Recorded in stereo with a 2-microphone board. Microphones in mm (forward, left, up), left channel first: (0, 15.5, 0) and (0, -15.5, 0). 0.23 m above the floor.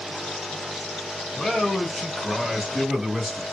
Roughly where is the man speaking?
Left.